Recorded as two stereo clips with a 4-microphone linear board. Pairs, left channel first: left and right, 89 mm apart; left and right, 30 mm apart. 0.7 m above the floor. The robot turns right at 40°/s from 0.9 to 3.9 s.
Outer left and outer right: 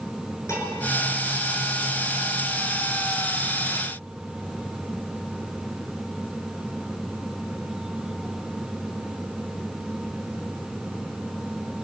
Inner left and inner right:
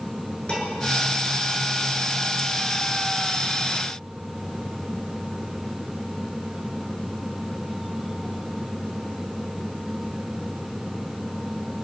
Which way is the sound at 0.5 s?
30° left (ahead or behind).